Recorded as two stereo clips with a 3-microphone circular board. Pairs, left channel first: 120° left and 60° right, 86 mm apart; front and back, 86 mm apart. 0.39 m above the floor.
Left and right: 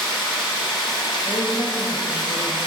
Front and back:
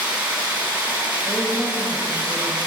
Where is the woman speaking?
105° left, 2 m.